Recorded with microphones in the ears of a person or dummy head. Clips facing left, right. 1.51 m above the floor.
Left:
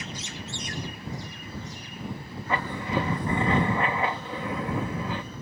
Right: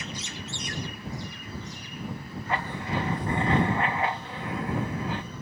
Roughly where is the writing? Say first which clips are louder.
Left 2 dB; left.